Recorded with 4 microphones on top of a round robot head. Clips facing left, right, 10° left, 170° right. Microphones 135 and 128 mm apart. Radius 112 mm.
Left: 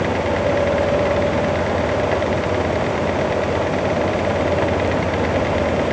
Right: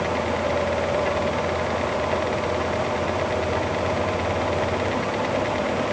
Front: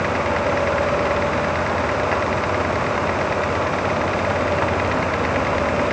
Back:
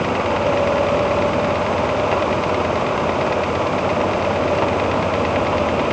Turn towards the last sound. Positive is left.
No sound to turn to.